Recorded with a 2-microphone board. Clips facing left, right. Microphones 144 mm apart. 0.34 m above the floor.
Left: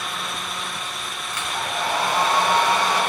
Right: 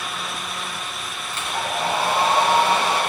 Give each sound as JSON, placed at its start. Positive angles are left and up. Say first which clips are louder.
{"t": 1.3, "sound": "a hair dryer", "louder": "right 2 dB", "side_deg": -30, "distance_m": 3.0}